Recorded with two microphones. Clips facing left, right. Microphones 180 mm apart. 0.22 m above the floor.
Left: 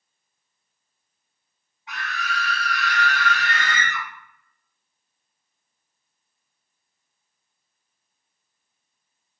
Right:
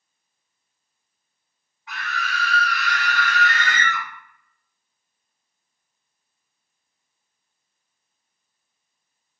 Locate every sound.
1.9 s a scream: 20° left (ahead or behind), 1.6 m; by 4.0 s 25° left (ahead or behind), 1.0 m